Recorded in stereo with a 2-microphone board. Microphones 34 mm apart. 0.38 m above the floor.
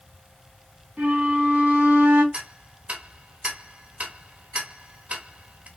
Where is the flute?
50° right (ahead or behind), 2.5 m.